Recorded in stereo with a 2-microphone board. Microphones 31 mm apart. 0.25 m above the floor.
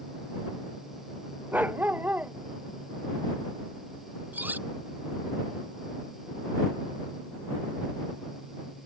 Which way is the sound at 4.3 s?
75° right (ahead or behind).